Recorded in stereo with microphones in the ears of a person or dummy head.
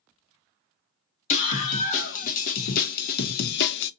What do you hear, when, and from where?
1.3 s a scream: 45° left (ahead or behind), 1.9 m; by 3.9 s 65° left (ahead or behind), 0.7 m